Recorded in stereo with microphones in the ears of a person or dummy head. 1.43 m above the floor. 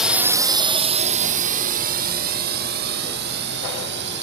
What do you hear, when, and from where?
0.0 s a drone: centre (ahead or behind); by 4.2 s 60° right (ahead or behind)